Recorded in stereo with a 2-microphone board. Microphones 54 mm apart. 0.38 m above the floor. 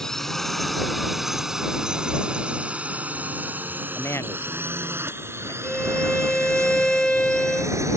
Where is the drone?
10° left (ahead or behind); by 8.0 s 60° right (ahead or behind).